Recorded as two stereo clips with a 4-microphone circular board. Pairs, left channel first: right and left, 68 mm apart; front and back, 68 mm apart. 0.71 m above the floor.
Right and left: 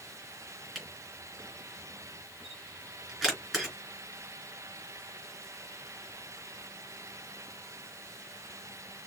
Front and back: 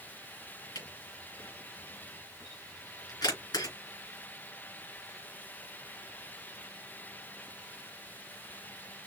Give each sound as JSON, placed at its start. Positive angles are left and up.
{"t": 0.8, "sound": "a camera shutter", "azimuth_deg": -5, "distance_m": 3.0}